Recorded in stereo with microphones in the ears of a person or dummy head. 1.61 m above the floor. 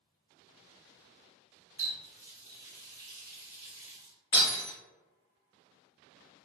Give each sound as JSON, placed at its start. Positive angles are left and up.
{"t": 1.8, "sound": "a running tap", "side_deg": -15, "distance_m": 1.2}
{"t": 4.3, "sound": "breaking glass", "side_deg": 20, "distance_m": 1.1}